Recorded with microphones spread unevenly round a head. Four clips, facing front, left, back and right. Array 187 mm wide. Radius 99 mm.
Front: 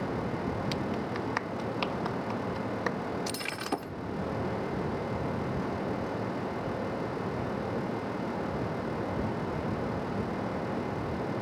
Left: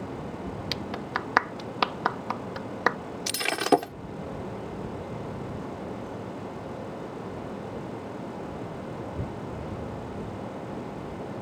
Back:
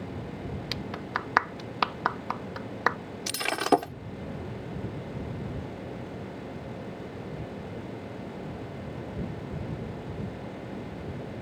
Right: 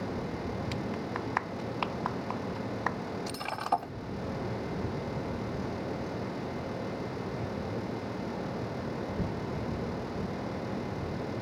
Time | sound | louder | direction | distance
0.7 | a clap | left 2 dB, front 2 dB | 95° left | ?
3.3 | breaking glass | left 9 dB, back 9 dB | 125° left | ?